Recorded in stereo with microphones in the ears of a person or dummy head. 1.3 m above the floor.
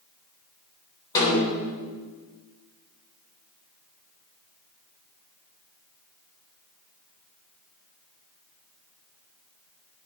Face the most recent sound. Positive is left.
turn(degrees=15)  # may be behind; listen again after turning